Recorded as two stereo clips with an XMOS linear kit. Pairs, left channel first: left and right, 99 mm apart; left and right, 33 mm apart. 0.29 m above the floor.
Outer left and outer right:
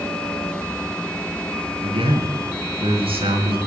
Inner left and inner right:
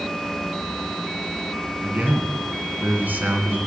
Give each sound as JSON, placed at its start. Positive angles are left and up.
{"t": 1.8, "sound": "a man speaking", "side_deg": -70, "distance_m": 3.0}